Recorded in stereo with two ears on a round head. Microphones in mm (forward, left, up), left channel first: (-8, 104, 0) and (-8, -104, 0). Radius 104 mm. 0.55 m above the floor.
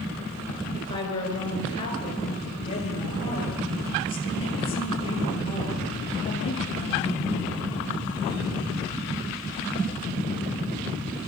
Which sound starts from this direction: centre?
A woman speaking, at 0.7 s.